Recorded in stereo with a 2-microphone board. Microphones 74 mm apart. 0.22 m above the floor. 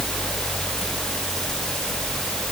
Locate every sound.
Only background noise.